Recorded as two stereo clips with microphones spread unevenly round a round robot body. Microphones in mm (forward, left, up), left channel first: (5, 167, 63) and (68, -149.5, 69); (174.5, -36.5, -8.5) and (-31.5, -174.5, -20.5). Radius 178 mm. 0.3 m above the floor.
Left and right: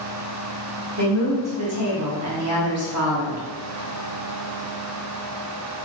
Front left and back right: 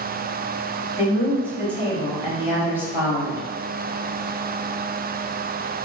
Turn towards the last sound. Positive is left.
turn(degrees=-70)